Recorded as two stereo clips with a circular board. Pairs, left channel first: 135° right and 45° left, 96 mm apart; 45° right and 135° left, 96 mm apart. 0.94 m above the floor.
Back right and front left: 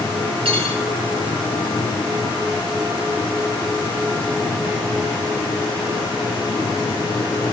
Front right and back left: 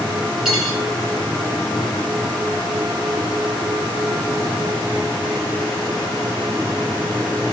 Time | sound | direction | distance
0.5 | cutlery clinking | 50° left | 6 m